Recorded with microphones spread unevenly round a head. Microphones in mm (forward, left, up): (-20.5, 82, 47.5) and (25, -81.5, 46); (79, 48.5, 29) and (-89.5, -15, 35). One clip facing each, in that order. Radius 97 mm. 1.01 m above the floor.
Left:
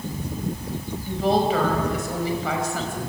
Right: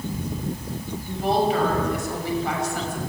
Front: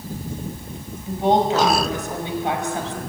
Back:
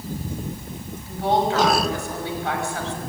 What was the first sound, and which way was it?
A woman speaking, 90° left.